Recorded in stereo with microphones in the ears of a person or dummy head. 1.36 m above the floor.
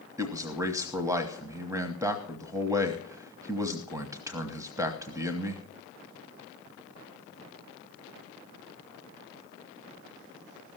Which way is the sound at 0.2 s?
15° right (ahead or behind).